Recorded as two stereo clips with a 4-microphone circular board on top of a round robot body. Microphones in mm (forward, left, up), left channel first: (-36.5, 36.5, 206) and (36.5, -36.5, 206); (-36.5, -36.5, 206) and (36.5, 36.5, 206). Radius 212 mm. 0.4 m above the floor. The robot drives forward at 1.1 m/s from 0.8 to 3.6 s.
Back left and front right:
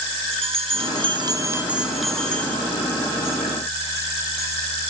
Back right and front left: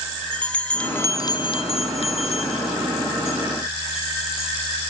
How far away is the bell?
About 1.1 m.